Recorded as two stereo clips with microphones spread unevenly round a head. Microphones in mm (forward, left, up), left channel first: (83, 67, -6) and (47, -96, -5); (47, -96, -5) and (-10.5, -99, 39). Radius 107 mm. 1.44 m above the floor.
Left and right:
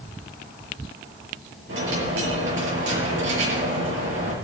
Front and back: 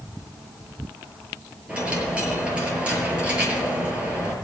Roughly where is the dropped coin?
Behind right.